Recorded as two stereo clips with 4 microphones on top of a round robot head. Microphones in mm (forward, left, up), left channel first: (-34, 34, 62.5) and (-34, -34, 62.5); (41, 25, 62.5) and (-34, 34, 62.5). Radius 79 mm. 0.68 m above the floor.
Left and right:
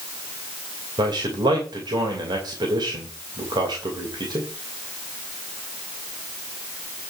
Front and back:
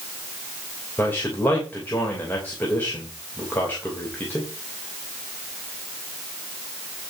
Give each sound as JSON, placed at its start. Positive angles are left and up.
{"t": 1.0, "sound": "a man speaking", "azimuth_deg": -75, "distance_m": 2.5}